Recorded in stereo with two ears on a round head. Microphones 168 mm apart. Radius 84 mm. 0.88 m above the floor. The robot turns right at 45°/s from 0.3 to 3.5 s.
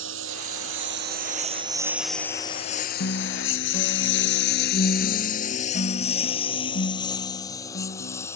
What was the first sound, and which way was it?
A lawn mower, 80° right.